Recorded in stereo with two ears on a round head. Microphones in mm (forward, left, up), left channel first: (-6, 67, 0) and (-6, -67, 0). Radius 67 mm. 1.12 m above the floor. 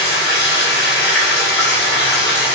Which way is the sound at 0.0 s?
75° left (ahead or behind).